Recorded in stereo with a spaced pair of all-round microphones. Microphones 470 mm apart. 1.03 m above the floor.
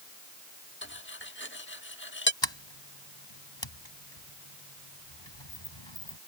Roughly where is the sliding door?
Left.